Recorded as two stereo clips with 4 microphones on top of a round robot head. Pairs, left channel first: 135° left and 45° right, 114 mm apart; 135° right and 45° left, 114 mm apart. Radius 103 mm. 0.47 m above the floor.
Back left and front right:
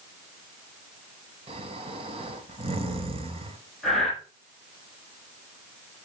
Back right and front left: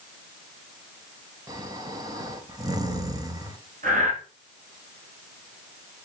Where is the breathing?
50° left, 5.5 m.